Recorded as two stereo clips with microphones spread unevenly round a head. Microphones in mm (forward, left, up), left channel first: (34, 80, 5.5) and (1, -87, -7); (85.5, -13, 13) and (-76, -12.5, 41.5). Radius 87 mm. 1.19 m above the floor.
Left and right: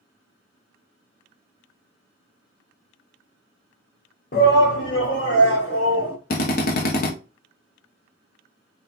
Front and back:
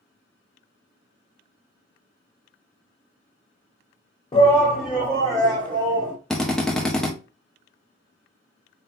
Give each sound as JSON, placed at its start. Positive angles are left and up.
{"t": 4.3, "sound": "a shout", "azimuth_deg": 45, "distance_m": 0.7}
{"t": 6.3, "sound": "a drill", "azimuth_deg": 75, "distance_m": 0.8}